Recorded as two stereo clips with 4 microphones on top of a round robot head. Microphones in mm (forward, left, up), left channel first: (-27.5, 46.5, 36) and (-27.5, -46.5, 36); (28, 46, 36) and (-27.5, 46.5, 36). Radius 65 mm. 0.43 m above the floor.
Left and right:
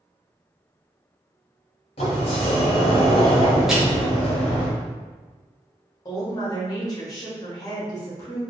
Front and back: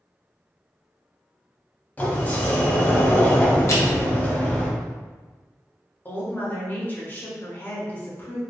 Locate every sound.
2.0 s a sliding door: 60° left, 0.9 m
3.7 s crushing: 5° right, 0.9 m
6.0 s a woman speaking: 45° left, 1.4 m